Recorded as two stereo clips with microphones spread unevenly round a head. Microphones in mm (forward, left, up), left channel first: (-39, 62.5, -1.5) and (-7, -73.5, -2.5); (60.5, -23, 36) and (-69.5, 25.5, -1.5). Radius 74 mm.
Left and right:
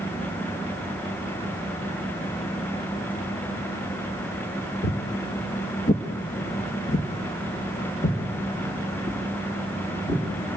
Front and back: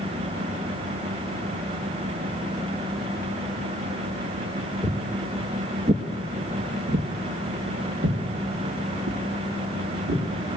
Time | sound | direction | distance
4.8 | footsteps | 75° left | 1.6 m